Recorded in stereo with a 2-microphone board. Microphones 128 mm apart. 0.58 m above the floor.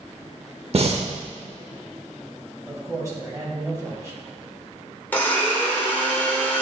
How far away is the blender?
About 1.3 m.